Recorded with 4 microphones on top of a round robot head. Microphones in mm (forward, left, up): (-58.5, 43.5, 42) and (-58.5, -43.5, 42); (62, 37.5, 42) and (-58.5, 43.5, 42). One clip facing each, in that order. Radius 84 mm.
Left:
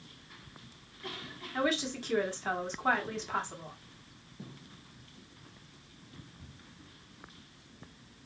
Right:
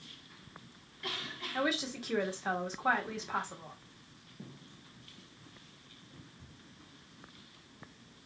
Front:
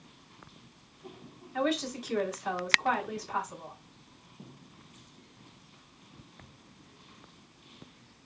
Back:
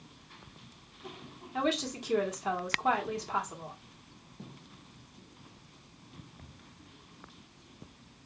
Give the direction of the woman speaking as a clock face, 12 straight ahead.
6 o'clock.